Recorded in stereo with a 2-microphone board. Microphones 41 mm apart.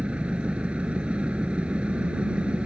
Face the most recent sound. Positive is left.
turn(degrees=-30)  # may be behind; listen again after turning